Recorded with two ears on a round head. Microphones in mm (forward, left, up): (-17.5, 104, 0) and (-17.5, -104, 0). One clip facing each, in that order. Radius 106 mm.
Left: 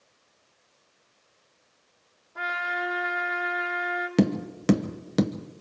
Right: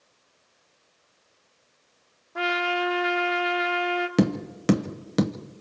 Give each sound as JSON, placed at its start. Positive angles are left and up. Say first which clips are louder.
{"t": 2.4, "sound": "a trumpet", "louder": "right 8 dB", "side_deg": -70, "distance_m": 2.0}
{"t": 4.2, "sound": "tapping", "louder": "left 1 dB", "side_deg": 0, "distance_m": 0.7}